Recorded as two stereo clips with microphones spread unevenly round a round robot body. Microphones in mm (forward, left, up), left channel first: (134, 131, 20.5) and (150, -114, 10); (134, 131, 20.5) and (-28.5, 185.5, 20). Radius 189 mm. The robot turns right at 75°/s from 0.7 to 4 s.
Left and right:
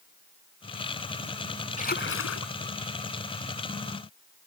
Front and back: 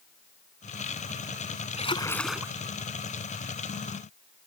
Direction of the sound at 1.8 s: 35° left.